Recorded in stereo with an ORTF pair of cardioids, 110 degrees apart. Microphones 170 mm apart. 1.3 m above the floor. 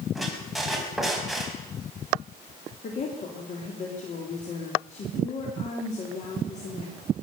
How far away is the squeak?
About 4 m.